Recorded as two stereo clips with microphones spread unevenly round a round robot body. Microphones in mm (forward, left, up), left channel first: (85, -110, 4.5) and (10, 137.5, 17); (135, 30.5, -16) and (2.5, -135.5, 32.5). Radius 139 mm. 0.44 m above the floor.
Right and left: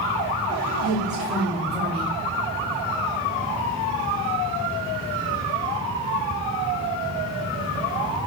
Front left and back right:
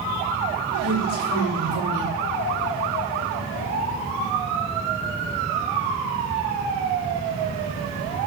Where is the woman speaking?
165° right, 1.8 m.